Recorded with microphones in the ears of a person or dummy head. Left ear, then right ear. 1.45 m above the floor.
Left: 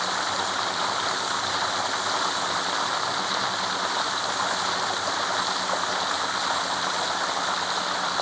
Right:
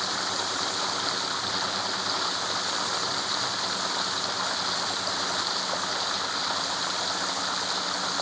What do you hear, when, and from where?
0.0 s running water: 25° left (ahead or behind)